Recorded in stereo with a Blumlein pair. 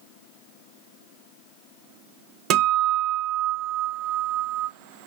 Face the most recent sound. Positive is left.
turn(degrees=-35)